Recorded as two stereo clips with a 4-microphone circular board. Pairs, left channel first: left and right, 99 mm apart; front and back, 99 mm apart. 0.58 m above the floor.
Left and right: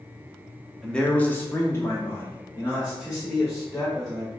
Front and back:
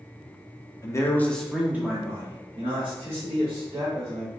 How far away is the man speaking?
About 0.7 m.